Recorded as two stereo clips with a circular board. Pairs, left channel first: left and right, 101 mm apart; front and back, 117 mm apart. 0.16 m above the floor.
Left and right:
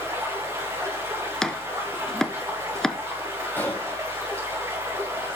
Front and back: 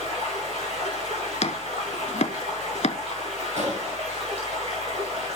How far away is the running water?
About 9 m.